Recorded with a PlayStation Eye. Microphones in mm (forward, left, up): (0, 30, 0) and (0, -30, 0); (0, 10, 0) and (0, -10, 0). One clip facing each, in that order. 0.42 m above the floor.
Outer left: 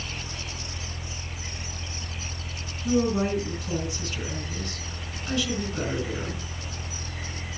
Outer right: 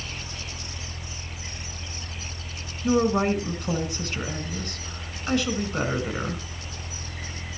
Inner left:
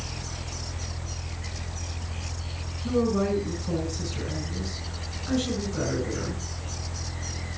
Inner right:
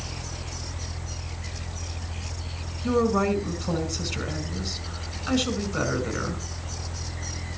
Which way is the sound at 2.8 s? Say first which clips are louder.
Outer right 2 dB, inner right 2 dB; 60° right (ahead or behind).